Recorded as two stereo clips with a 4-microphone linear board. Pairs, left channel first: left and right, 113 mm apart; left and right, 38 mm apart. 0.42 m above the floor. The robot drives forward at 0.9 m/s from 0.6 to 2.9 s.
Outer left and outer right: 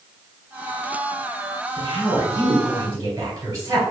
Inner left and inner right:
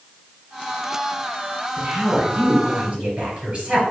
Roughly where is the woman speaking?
Right.